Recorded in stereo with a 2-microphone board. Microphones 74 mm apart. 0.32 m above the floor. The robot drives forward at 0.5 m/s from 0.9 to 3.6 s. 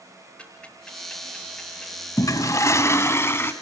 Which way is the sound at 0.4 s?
15° left (ahead or behind).